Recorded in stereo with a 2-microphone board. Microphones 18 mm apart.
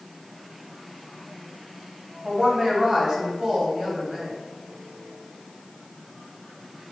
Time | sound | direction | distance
2.2 | a woman speaking | 35° right (ahead or behind) | 1.2 m